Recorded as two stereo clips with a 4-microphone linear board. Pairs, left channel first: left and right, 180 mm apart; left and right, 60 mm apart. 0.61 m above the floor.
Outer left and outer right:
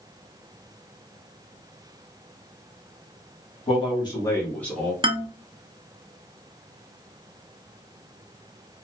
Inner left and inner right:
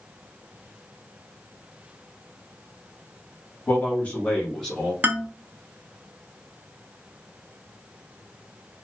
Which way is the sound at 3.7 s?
30° left (ahead or behind).